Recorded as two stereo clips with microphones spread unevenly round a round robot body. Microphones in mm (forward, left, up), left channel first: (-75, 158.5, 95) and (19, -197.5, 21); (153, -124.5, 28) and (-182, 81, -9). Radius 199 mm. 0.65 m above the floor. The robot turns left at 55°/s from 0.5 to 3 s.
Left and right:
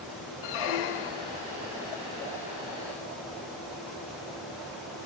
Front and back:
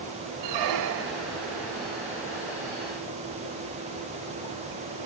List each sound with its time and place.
0.4 s a squeak: 115° left; by 1.4 s 65° left